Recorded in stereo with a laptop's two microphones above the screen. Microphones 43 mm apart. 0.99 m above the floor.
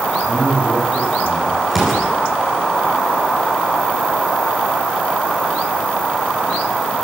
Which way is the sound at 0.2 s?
5° left (ahead or behind).